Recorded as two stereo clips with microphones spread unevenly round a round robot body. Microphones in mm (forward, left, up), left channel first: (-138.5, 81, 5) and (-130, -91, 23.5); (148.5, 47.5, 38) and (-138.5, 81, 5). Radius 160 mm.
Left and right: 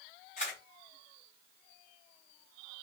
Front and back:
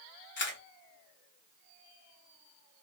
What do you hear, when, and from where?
0.4 s a camera shutter: 45° left, 1.1 m